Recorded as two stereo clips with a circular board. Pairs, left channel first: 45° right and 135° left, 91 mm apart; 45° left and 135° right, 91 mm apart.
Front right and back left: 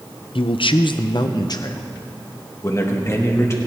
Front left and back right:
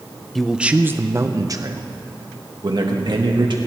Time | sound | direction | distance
0.3 | a man speaking | 45° right | 0.6 m